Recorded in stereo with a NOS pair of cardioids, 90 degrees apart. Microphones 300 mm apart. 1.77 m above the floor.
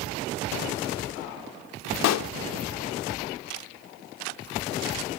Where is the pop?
60° left, 0.5 m.